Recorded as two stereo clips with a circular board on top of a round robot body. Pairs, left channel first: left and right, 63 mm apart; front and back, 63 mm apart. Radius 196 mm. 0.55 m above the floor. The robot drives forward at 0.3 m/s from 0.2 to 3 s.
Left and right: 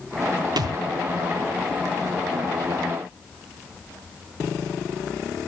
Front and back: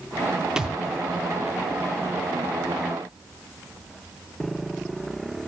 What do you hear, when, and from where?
0.6 s a thud: 100° right, 0.9 m; by 0.8 s 105° right, 0.9 m